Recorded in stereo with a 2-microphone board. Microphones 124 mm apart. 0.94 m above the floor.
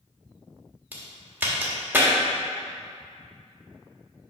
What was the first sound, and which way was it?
A crack, 15° right (ahead or behind).